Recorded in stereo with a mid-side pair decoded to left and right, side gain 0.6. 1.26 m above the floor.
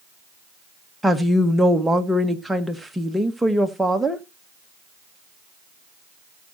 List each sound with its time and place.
1.0 s a woman speaking: 5° right, 1.7 m